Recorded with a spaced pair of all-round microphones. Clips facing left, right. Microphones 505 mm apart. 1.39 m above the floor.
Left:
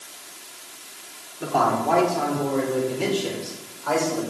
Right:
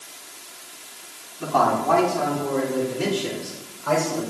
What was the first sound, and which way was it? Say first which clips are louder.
A man speaking: right 1 dB; 25° right (ahead or behind).